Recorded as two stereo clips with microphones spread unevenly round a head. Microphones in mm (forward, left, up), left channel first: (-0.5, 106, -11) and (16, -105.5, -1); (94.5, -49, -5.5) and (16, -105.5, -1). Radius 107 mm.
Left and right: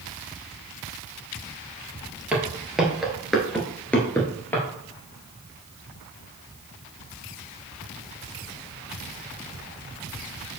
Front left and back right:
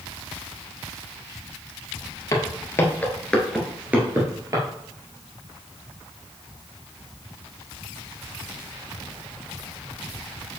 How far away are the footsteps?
About 2 m.